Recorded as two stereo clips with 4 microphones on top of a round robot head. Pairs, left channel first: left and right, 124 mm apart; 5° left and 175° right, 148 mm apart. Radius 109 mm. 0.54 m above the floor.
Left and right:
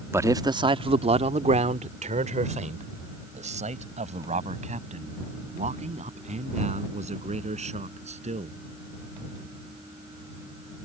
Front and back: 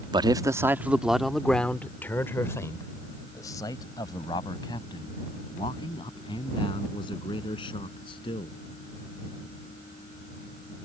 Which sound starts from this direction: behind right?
A man speaking, at 0.1 s.